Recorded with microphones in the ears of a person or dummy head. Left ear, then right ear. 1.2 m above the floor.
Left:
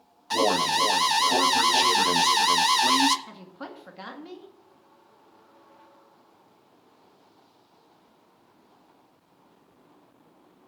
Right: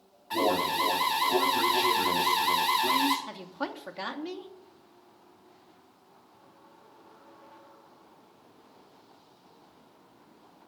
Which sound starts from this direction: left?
An alarm, at 0.3 s.